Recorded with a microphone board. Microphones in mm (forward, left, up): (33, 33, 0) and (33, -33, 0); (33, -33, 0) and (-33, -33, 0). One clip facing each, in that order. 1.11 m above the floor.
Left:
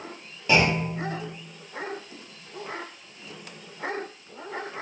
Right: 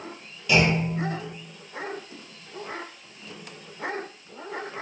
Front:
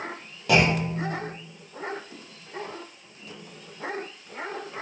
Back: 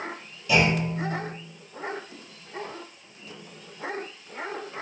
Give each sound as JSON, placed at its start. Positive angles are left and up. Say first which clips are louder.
{"t": 0.5, "sound": "a clunk", "louder": "even, front 1 dB", "azimuth_deg": 30, "distance_m": 0.7}